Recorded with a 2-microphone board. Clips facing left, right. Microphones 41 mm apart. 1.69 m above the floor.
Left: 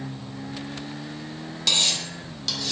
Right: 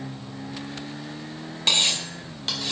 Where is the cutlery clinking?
30° right (ahead or behind), 1.0 m.